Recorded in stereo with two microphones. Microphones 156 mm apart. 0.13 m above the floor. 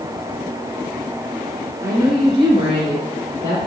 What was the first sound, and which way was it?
A woman speaking, 20° right (ahead or behind).